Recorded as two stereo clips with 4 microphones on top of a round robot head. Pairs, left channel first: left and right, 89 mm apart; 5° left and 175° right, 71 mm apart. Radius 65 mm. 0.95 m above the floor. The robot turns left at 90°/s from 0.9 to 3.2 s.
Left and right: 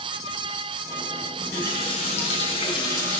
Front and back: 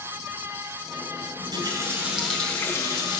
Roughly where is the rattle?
I don't hear a rattle.